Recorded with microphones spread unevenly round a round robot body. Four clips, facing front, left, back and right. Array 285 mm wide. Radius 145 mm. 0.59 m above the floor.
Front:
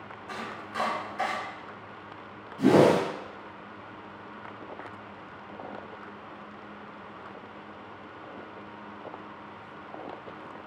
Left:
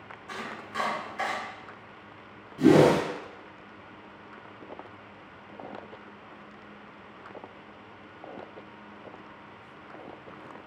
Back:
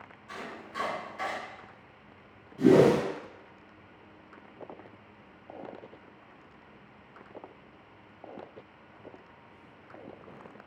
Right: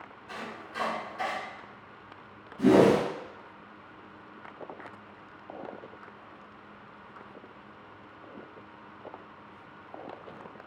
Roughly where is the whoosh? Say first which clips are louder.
Left 1 dB, front 1 dB; left.